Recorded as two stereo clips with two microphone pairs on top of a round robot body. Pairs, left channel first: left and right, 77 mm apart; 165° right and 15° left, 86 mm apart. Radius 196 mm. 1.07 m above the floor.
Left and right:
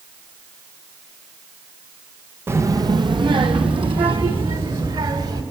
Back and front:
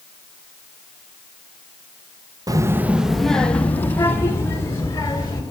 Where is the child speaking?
30° right, 1.2 m; by 5.4 s 110° right, 4.5 m.